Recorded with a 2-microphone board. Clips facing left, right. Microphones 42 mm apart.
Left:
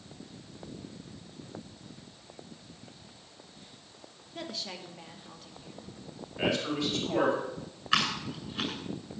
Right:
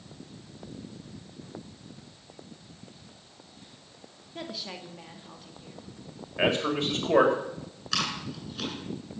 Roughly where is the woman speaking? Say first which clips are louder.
Right 1 dB; centre.